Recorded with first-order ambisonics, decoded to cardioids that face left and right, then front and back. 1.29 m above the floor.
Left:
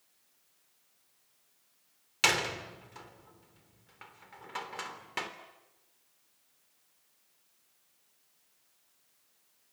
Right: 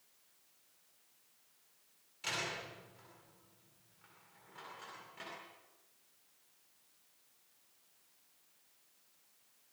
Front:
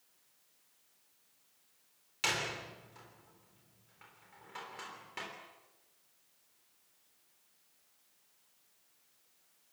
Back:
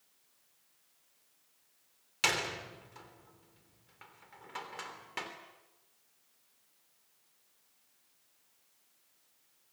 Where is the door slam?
105° left, 3 m.